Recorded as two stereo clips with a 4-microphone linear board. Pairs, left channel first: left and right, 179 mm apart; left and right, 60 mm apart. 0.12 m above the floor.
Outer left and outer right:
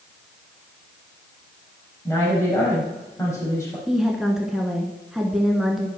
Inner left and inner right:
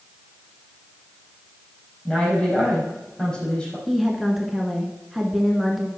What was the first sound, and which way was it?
A woman speaking, 15° left (ahead or behind).